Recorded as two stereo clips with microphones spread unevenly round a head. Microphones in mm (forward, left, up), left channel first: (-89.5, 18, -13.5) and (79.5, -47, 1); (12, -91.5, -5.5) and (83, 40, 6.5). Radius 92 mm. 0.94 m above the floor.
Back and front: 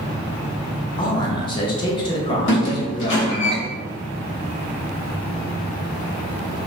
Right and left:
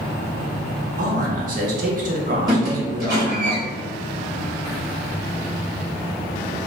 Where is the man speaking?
100° left, 0.5 m.